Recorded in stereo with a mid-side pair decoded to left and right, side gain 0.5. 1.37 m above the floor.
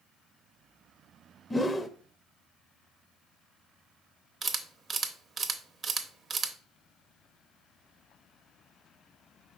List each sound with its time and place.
1.5 s a whoosh: 15° left, 0.6 m
4.4 s a camera shutter: 40° right, 0.7 m